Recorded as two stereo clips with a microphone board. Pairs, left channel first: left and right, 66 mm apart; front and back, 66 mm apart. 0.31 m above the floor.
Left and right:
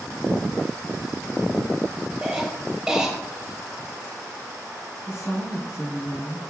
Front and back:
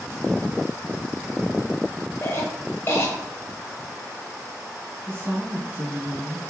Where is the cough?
15° right, 1.6 m.